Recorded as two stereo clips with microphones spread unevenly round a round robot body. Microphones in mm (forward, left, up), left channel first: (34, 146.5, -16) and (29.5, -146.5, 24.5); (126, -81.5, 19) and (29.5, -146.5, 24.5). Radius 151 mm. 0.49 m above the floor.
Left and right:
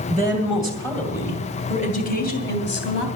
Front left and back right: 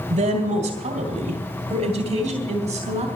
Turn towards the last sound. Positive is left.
turn(degrees=135)